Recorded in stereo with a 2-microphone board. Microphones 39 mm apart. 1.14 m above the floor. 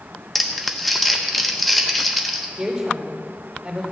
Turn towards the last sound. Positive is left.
turn(degrees=-15)  # may be behind; listen again after turning